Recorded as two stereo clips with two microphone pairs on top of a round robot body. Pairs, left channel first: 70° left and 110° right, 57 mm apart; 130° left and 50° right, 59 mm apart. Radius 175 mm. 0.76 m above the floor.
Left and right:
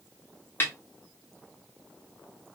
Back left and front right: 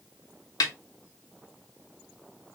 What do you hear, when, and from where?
0.6 s a snare drum: 125° left, 0.7 m